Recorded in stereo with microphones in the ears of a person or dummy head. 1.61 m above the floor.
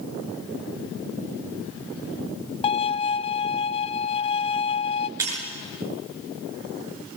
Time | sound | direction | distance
2.6 | a violin | 35° left (ahead or behind) | 0.5 m
5.2 | breaking glass | 15° right (ahead or behind) | 6.5 m